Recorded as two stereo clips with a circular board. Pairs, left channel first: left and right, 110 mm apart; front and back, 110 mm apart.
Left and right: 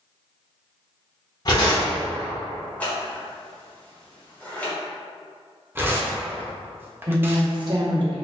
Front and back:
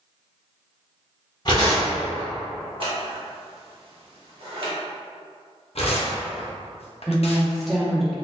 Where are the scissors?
165° left, 0.9 m.